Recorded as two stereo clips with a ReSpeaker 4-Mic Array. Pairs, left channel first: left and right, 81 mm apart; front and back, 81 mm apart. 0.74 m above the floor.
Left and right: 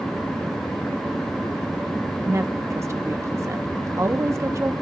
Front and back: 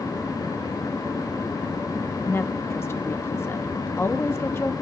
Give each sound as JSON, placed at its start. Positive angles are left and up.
{"t": 2.2, "sound": "a woman speaking", "azimuth_deg": -50, "distance_m": 0.7}